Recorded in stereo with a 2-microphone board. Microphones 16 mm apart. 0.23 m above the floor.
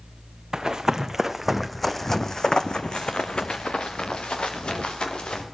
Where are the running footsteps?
40° right (ahead or behind), 1.3 m; by 5.4 s 85° left, 2.5 m.